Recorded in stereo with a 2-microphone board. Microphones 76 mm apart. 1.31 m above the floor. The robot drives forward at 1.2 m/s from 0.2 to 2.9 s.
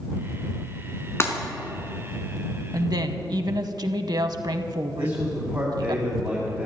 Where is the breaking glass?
35° left (ahead or behind), 1.4 m.